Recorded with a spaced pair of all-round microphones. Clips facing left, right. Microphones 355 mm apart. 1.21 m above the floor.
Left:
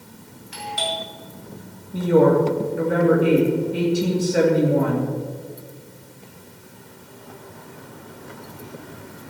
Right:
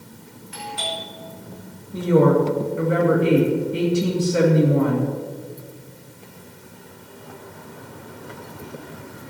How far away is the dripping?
I don't hear dripping.